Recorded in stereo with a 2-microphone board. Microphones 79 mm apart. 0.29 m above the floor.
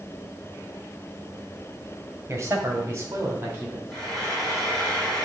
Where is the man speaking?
35° right (ahead or behind), 1.7 m; by 3.8 s 30° right (ahead or behind), 3 m.